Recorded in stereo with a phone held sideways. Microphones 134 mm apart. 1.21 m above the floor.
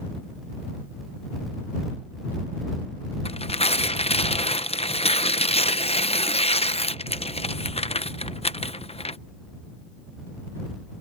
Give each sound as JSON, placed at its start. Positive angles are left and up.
{"t": 3.2, "sound": "tearing paper", "side_deg": 50}